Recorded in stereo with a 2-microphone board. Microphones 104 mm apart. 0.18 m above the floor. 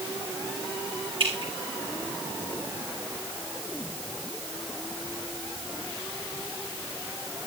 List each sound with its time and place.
1.2 s dripping: 60° right (ahead or behind), 5 m